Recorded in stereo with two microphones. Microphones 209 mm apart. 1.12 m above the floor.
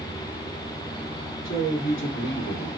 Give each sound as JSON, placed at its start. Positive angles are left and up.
{"t": 1.4, "sound": "a man speaking", "side_deg": 80, "distance_m": 2.5}